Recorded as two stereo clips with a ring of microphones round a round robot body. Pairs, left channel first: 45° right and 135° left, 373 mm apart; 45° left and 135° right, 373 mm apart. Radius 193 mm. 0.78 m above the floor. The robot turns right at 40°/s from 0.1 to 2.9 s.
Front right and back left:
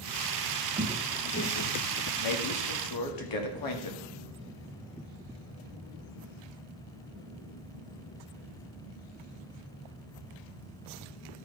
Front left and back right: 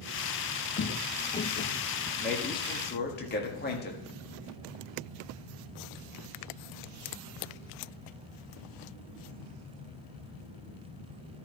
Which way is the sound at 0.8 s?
75° left.